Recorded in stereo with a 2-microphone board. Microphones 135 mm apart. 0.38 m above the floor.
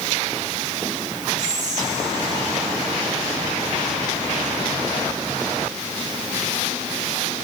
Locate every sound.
1.4 s whispering: 65° right (ahead or behind), 2 m